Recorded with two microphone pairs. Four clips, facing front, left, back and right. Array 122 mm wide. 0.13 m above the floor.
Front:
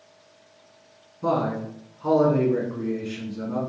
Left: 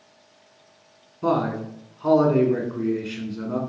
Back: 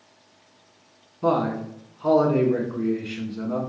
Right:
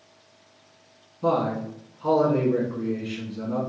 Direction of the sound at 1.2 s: 135° left.